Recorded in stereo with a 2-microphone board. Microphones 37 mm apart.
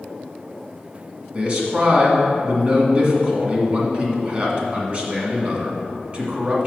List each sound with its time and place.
1.3 s a man speaking: 35° right (ahead or behind), 1.8 m